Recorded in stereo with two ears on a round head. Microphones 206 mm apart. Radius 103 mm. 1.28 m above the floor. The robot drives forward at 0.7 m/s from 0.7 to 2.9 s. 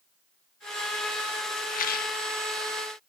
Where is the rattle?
35° left (ahead or behind), 1.4 m; by 2.1 s 45° left (ahead or behind), 1.2 m.